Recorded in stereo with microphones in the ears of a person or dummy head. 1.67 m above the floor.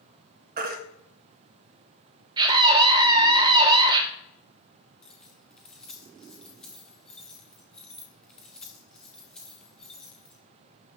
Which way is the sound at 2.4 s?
25° right (ahead or behind).